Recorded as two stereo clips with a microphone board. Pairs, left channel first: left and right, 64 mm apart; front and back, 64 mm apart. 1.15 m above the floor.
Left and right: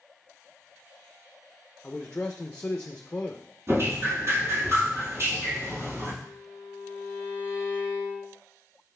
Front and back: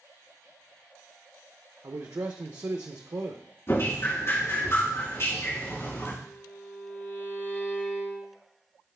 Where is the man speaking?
155° left, 0.6 m.